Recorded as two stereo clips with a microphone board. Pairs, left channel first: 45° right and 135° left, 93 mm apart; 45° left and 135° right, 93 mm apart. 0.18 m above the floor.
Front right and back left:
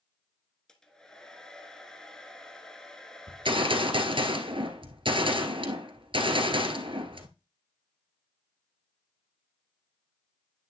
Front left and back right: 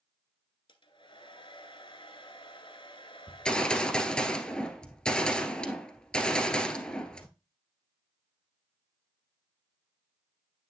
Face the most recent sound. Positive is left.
turn(degrees=125)